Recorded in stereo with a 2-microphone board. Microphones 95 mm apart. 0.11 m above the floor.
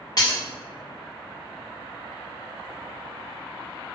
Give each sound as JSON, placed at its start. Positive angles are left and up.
{"t": 0.2, "sound": "breaking glass", "side_deg": 40, "distance_m": 1.6}